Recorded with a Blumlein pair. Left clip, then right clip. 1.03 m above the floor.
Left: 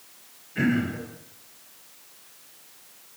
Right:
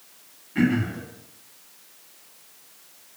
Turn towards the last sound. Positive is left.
turn(degrees=-70)